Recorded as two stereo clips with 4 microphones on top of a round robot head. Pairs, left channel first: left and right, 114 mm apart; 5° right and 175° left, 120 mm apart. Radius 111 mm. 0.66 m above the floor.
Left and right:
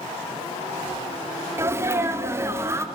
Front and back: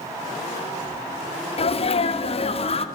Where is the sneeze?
25° right, 2 m.